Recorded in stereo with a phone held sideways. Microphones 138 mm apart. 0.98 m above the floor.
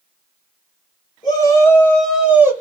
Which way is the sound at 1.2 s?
30° left (ahead or behind).